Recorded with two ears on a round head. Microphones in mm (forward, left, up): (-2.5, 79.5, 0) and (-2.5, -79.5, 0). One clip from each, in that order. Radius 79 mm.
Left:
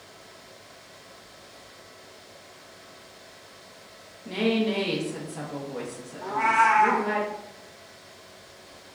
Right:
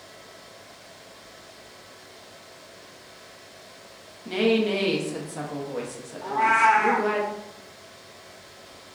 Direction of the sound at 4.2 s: 15° right (ahead or behind).